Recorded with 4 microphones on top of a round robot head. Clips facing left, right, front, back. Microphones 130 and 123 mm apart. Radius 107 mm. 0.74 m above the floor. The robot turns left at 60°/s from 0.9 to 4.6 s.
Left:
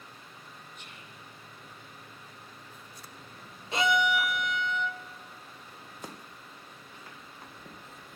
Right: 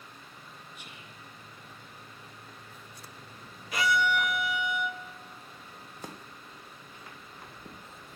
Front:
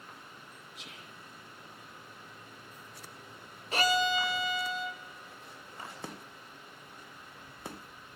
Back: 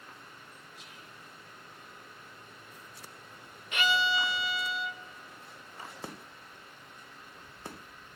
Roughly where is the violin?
Ahead left.